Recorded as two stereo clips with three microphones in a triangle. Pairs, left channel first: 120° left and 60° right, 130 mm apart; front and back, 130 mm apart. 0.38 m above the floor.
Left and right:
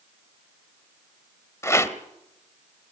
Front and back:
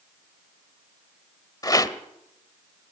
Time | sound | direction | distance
1.6 | a rattle | 55° left | 1.2 m